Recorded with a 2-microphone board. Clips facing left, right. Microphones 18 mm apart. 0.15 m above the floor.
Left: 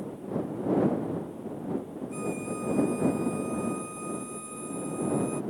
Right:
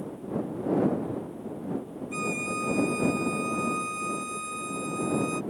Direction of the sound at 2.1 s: 50° right (ahead or behind).